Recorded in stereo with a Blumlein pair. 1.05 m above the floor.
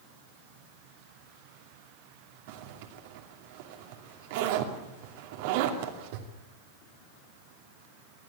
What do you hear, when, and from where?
2.5 s a zipper: 50° right, 2.5 m